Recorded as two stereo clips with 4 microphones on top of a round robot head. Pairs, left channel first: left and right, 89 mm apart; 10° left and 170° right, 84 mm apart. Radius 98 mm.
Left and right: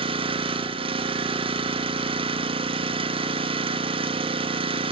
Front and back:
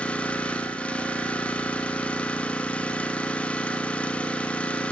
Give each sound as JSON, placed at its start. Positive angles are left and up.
{"t": 0.0, "sound": "an engine running", "azimuth_deg": -70, "distance_m": 1.8}